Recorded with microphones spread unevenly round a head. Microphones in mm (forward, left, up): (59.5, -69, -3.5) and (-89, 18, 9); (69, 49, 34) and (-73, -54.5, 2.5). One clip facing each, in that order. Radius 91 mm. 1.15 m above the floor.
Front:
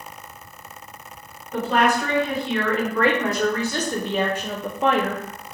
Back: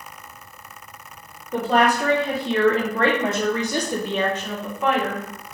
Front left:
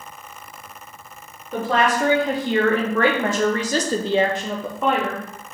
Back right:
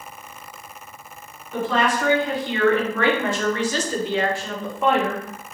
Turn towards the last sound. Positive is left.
turn(degrees=-75)